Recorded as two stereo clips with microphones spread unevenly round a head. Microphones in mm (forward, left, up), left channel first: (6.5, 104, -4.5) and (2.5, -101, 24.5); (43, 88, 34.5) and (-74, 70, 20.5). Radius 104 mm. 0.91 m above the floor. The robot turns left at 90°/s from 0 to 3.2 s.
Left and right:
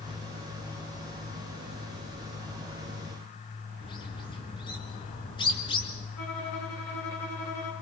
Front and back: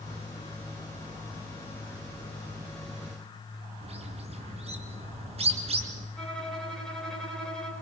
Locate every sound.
3.8 s a bird: 160° left, 3 m
6.2 s a violin: 95° left, 8 m